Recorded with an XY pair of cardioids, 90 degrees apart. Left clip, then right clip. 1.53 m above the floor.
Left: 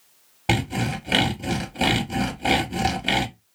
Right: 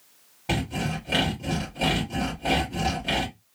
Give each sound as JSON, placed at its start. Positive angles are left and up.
{"t": 0.5, "sound": "sawing", "azimuth_deg": 65, "distance_m": 1.4}